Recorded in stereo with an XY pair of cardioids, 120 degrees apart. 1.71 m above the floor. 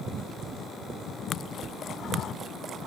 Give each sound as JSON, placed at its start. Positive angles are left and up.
{"t": 1.6, "sound": "a cupboard door", "azimuth_deg": -45}